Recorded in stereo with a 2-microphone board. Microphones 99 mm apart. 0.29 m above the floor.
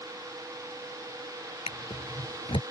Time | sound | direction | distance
1.7 | a drawer | 75° left (ahead or behind) | ?